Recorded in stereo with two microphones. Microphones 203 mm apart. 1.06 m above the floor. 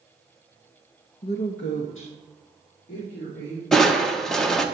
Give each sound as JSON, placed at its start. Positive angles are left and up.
{"t": 1.2, "sound": "a woman speaking", "side_deg": 50, "distance_m": 0.8}
{"t": 3.7, "sound": "crushing", "side_deg": 0, "distance_m": 1.0}